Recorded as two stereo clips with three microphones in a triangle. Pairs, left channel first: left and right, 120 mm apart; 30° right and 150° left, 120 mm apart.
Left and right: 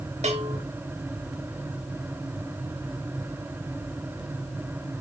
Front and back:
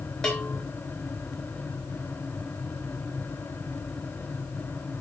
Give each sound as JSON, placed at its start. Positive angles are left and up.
{"t": 0.2, "sound": "a bell", "azimuth_deg": -115, "distance_m": 3.0}